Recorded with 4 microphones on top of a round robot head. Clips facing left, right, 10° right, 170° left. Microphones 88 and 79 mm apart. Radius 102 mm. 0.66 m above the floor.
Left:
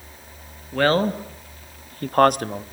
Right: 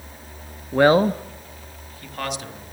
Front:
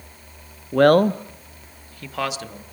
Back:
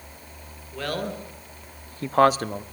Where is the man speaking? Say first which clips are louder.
Right 4 dB, front 16 dB; 25° right, 1.1 m; by 2.6 s 125° left, 1.6 m.